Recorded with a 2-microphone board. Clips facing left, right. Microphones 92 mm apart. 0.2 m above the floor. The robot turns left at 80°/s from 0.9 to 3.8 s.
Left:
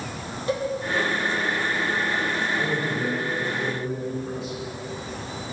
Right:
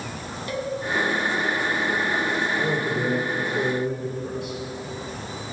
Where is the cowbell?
25° left (ahead or behind), 1.1 m.